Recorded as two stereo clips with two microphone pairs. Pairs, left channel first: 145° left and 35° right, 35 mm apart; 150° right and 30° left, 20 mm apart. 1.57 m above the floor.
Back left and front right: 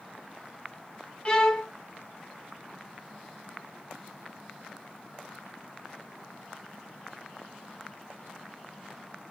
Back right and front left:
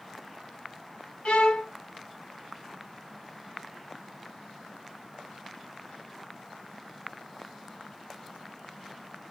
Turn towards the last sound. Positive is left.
turn(degrees=-150)